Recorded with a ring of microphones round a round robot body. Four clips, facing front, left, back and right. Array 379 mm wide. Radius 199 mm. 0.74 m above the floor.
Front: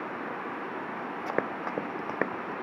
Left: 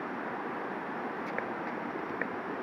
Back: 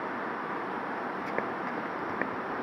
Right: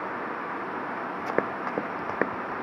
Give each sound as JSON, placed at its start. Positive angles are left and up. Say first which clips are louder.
{"t": 1.3, "sound": "running footsteps", "louder": "right 7 dB, front 5 dB", "azimuth_deg": -70}